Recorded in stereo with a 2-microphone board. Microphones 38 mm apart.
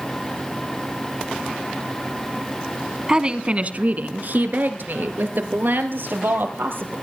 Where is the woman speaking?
20° right (ahead or behind), 1.0 m; by 7.0 s 75° right (ahead or behind), 4 m.